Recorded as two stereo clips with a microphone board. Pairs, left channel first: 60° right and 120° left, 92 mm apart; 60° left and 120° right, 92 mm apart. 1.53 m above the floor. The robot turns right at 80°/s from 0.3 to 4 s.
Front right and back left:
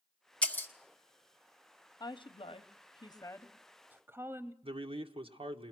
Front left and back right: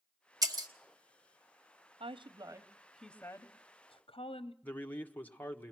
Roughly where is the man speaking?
Behind left.